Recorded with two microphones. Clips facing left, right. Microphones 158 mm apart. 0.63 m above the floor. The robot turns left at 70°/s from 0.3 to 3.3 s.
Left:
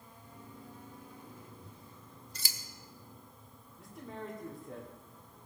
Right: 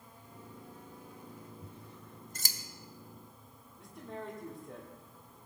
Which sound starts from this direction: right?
Scissors, at 1.6 s.